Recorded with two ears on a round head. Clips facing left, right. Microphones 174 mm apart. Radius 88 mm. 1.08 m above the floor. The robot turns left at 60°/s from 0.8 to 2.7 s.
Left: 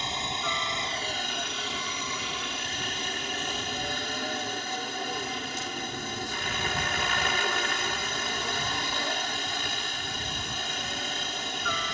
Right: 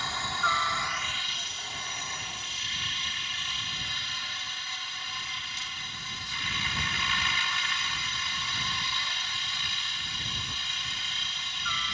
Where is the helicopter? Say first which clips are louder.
Left 2 dB; 160° left; by 11.9 s 45° left.